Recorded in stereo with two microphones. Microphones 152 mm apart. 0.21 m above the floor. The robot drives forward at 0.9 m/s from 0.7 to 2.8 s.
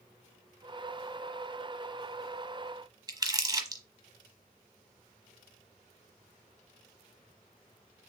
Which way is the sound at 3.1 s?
30° right (ahead or behind).